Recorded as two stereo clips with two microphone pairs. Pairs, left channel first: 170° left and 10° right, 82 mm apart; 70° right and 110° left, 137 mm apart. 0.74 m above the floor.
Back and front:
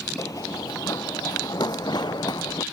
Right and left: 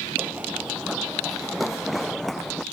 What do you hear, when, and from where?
0.2 s running footsteps: straight behind; by 2.6 s 160° right